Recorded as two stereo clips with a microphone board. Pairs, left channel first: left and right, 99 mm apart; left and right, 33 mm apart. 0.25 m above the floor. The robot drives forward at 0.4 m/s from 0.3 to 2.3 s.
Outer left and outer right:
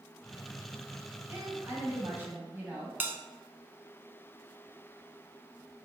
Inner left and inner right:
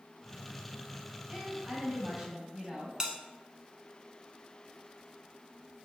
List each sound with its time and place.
1.3 s a woman speaking: 20° right (ahead or behind), 1.2 m
3.0 s a bell: 20° right (ahead or behind), 0.6 m